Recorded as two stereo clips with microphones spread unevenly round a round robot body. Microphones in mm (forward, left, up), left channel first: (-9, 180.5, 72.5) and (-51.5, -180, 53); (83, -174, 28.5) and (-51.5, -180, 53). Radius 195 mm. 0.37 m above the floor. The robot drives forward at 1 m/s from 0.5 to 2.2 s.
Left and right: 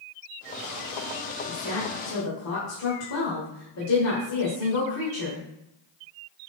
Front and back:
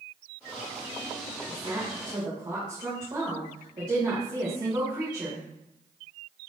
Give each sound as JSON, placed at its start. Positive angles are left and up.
{"t": 1.5, "sound": "a woman speaking", "azimuth_deg": 90, "distance_m": 1.8}